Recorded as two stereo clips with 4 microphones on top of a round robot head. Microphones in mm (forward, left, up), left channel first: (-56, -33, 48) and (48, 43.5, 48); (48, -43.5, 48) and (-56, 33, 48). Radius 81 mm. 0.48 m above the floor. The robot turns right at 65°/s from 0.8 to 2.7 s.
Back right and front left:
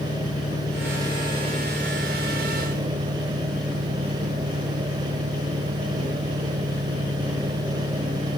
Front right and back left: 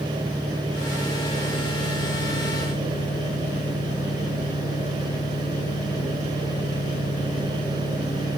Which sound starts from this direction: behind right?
An engine running, at 0.0 s.